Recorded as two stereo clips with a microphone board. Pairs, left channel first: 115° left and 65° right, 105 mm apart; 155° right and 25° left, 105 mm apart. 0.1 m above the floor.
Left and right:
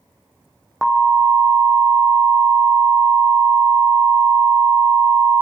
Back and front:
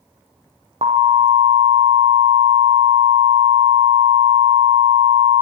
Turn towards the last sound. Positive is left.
turn(degrees=20)